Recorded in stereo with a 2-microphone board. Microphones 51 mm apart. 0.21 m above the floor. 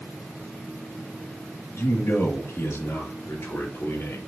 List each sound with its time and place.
1.8 s a man speaking: 65° left (ahead or behind), 3.5 m